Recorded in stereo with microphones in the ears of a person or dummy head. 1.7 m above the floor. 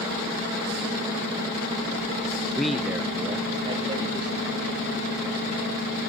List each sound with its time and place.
2.6 s a man speaking: 5° left (ahead or behind), 0.6 m; by 4.8 s 30° right (ahead or behind), 3 m